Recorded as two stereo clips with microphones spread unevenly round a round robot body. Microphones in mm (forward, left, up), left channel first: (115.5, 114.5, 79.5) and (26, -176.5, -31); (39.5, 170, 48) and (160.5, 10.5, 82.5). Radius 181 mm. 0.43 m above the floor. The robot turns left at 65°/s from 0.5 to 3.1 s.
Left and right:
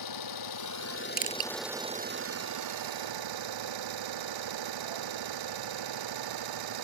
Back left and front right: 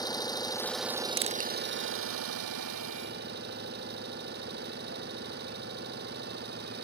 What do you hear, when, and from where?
0.0 s an engine running: 55° left; by 6.8 s 115° right
1.2 s crushing: 45° right; by 1.5 s 65° right